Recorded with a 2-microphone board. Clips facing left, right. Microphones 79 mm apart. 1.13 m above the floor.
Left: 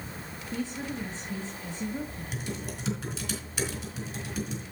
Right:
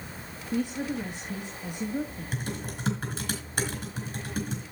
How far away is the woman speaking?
About 1.2 m.